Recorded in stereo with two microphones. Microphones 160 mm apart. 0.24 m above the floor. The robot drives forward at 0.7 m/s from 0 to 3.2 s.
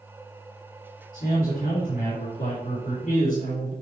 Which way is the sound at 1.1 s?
70° left (ahead or behind).